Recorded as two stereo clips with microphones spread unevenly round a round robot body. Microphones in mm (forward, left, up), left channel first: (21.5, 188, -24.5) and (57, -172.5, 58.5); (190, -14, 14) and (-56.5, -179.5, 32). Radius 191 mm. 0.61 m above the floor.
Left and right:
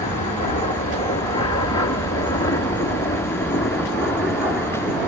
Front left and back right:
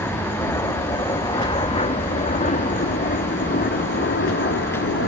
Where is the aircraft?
115° left; by 5.1 s 20° left.